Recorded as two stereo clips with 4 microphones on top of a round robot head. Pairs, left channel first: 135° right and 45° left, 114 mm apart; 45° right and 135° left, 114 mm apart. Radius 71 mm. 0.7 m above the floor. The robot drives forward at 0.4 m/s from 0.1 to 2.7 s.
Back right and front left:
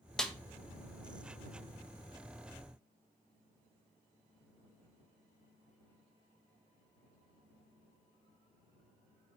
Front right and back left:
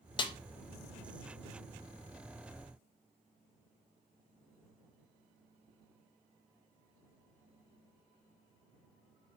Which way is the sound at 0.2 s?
50° right.